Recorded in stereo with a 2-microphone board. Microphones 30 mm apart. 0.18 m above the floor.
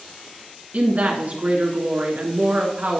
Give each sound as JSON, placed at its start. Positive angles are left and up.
{"t": 0.7, "sound": "a woman speaking", "side_deg": -55, "distance_m": 2.0}